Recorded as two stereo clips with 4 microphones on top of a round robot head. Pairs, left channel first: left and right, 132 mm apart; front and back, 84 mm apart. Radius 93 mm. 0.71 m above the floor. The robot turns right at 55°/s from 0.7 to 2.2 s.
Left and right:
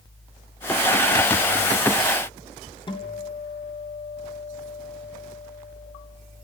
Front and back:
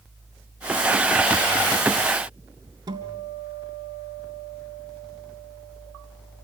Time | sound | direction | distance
2.9 | a guitar | 140° left | 3 m